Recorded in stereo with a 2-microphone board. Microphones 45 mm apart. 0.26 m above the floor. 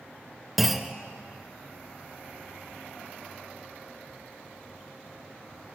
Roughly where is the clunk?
Centre.